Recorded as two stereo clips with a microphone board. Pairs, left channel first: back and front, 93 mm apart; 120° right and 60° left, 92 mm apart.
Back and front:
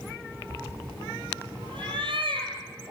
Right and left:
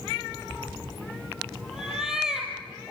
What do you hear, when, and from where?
0.5 s a cat meowing: 25° right, 4.5 m